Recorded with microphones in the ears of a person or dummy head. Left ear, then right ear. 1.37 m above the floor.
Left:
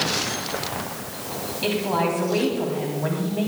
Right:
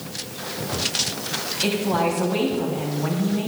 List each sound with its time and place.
1.6 s a woman speaking: 20° left (ahead or behind), 3.5 m